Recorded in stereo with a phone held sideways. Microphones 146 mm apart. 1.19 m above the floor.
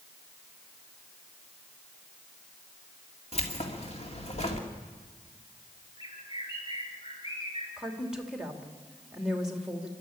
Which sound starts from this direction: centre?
A woman speaking, at 7.8 s.